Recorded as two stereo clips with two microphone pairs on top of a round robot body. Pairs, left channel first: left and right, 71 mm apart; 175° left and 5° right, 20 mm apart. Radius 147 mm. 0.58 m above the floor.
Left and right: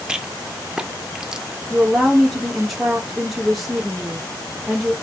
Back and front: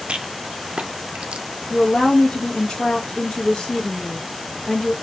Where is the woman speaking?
Straight behind, 1.0 m.